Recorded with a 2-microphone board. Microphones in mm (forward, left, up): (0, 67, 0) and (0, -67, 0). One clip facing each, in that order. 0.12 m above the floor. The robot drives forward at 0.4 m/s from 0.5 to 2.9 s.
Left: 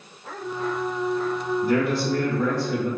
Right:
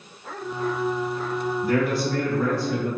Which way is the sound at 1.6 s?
20° left (ahead or behind).